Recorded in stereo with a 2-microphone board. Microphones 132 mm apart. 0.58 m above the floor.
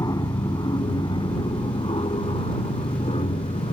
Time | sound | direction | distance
0.0 | an aircraft | 30° left (ahead or behind) | ?